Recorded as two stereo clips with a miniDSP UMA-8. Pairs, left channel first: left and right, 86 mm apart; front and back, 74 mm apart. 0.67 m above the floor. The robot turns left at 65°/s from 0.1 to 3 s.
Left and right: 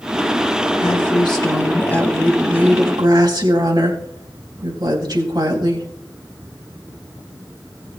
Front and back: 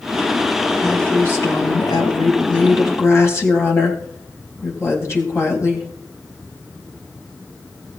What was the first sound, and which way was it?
A woman speaking, 90° left.